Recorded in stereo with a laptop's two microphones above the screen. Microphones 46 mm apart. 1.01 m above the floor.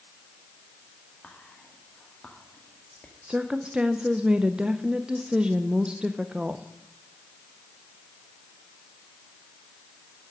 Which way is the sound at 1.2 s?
25° left (ahead or behind).